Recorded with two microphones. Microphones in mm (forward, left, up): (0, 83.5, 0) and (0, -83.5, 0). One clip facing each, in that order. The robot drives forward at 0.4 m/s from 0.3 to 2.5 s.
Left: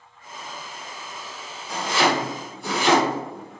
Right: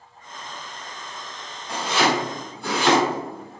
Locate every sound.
1.7 s chopping: 70° right (ahead or behind), 1.5 m; by 3.6 s 65° right (ahead or behind), 1.6 m